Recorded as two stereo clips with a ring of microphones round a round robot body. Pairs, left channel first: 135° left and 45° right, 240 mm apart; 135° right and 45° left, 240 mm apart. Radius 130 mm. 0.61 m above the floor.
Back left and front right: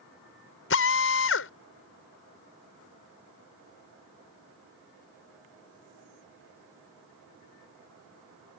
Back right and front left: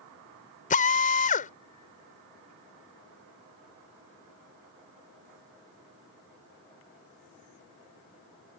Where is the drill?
170° left.